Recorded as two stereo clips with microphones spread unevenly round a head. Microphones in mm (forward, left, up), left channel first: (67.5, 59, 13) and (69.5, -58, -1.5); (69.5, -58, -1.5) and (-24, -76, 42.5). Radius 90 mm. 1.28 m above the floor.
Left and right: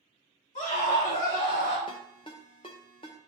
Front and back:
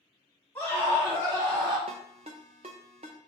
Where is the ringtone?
150° left, 0.6 m.